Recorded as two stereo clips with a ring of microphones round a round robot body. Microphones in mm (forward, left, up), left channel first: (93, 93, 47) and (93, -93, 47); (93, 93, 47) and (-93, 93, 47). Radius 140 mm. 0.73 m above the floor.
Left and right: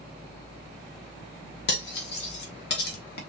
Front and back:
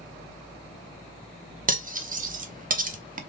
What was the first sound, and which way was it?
Cutlery clinking, 135° left.